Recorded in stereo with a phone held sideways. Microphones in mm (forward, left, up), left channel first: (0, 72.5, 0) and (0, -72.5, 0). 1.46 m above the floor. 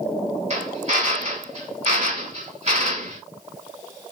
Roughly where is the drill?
Right.